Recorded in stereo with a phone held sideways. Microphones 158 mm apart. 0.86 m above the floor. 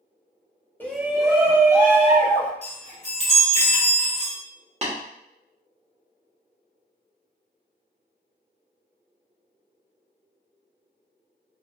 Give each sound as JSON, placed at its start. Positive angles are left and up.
{"t": 0.8, "sound": "a shout", "side_deg": 10, "distance_m": 0.5}
{"t": 2.6, "sound": "a chime", "side_deg": -40, "distance_m": 1.5}
{"t": 4.8, "sound": "tapping", "side_deg": -40, "distance_m": 1.0}